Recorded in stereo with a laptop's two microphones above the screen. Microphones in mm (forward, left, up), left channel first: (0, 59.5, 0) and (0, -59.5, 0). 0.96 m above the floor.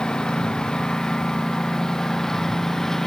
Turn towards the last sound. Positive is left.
turn(degrees=5)  # may be behind; listen again after turning